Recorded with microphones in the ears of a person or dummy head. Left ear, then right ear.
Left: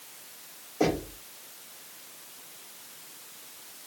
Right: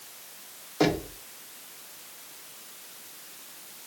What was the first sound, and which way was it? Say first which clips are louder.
Knocking: right 2 dB; 35° right (ahead or behind).